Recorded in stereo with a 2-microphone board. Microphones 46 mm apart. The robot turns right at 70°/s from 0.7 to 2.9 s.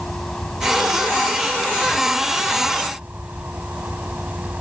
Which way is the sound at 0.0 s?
170° left.